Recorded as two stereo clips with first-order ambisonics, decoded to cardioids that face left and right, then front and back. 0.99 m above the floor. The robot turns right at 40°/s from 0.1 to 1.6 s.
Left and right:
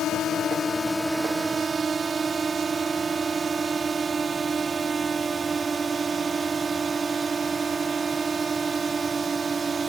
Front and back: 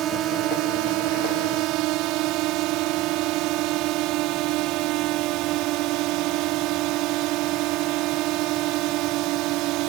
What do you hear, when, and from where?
0.0 s a drone: 135° left; by 9.9 s 165° right